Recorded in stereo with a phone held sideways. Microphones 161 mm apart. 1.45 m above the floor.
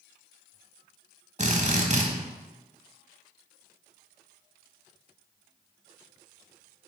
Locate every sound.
1.4 s a drill: 45° right (ahead or behind), 1.0 m